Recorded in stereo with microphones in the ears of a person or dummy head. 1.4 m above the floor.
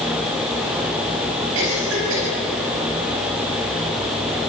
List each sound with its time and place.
1.6 s a cough: 75° right (ahead or behind), 9 m